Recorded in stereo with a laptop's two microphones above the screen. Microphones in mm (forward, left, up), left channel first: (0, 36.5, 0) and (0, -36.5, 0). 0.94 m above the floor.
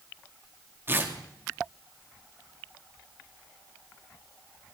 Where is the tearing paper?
30° right (ahead or behind), 2 m.